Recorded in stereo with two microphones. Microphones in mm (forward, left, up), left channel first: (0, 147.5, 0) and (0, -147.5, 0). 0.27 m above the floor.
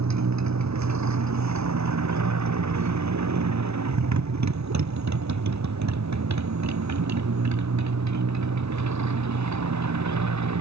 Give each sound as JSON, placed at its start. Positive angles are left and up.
{"t": 0.0, "sound": "a motorcycle", "side_deg": -65}